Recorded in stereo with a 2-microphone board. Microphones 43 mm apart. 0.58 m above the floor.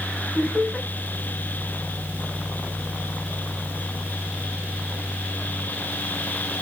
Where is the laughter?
30° left (ahead or behind), 5 m.